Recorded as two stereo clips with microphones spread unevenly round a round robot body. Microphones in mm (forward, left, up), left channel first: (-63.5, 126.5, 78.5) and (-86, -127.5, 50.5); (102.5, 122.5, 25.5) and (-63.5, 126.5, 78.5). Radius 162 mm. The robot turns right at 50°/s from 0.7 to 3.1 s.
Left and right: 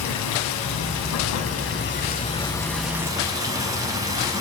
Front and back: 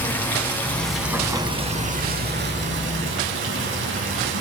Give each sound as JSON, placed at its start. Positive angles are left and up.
{"t": 0.0, "sound": "running water", "azimuth_deg": 70, "distance_m": 3.0}